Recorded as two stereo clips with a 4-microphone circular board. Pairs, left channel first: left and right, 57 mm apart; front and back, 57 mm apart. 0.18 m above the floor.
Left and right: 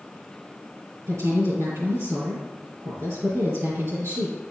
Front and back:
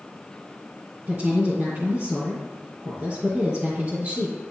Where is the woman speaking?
125° right, 3.5 m.